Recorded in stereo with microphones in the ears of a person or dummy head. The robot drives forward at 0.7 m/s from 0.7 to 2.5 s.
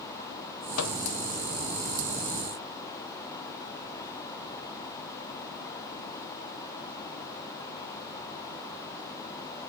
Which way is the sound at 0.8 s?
85° left.